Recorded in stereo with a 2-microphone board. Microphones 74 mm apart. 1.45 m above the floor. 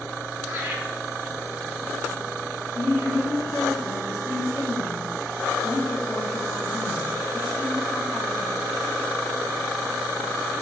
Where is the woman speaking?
15° left (ahead or behind), 4.5 m.